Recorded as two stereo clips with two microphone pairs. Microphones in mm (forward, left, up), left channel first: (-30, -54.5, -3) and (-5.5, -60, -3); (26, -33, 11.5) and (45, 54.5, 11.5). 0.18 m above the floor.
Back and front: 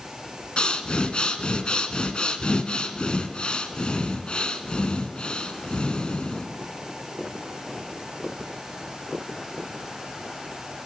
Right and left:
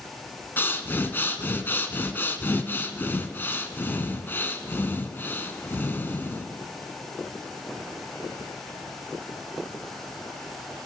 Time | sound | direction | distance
0.6 | breathing | 160° right | 0.7 m